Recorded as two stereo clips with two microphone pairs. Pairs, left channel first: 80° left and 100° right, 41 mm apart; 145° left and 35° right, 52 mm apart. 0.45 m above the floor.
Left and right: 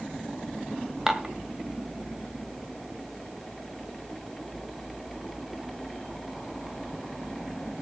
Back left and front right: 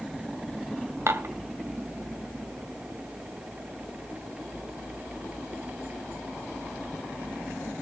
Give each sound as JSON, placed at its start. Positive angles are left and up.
{"t": 1.1, "sound": "dishes clattering", "azimuth_deg": -20, "distance_m": 1.8}